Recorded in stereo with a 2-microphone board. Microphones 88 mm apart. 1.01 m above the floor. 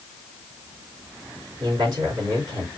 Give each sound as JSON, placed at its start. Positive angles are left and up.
{"t": 1.6, "sound": "a man speaking", "side_deg": -45, "distance_m": 3.0}